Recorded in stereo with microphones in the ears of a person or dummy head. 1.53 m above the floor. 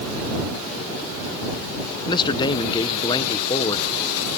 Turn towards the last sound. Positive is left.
turn(degrees=20)  # may be behind; listen again after turning